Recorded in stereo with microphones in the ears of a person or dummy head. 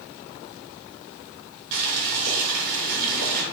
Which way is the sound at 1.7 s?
70° right (ahead or behind).